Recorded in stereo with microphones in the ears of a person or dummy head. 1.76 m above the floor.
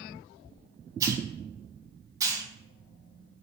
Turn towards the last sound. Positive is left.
turn(degrees=-20)  # may be behind; listen again after turning